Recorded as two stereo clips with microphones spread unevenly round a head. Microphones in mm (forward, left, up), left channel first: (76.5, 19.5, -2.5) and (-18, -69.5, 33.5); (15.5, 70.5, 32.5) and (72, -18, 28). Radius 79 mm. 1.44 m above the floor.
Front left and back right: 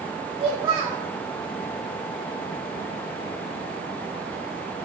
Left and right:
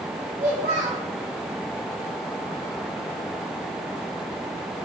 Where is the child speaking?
105° right, 1.5 m.